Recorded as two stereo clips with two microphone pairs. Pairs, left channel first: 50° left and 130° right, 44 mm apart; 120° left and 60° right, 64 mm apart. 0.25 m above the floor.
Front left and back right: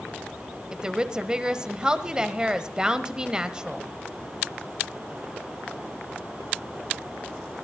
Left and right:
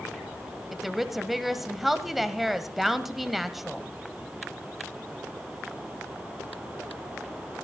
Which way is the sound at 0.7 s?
145° right.